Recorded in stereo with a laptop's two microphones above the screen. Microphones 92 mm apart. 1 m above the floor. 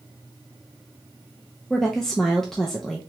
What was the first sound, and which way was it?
A woman speaking, 5° left (ahead or behind).